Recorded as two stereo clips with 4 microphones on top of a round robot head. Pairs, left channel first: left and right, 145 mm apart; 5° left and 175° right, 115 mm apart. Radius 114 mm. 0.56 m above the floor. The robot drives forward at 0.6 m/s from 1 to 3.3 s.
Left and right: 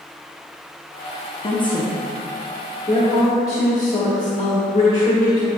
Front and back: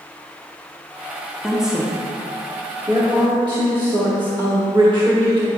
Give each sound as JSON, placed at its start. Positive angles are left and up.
{"t": 1.4, "sound": "a woman speaking", "azimuth_deg": 95, "distance_m": 1.3}